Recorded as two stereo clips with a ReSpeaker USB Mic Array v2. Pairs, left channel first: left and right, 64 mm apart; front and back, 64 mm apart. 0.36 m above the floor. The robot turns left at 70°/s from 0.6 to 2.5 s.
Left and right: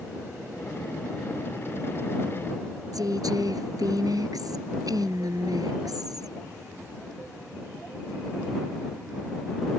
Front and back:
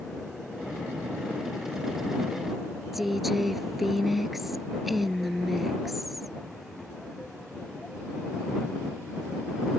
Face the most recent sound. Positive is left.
turn(degrees=-90)